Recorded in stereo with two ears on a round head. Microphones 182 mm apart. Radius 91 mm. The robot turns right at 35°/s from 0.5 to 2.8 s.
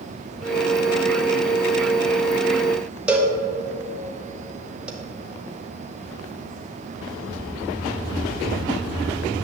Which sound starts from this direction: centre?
A cowbell, at 3.1 s.